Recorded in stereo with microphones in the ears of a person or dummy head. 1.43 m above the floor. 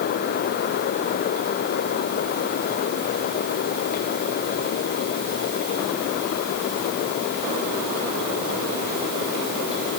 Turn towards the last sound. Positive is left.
No sound to turn to.